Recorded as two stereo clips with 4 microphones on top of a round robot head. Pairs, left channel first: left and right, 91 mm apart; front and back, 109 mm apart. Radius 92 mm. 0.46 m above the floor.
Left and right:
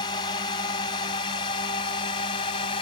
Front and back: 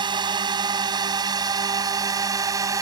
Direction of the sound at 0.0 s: 135° left.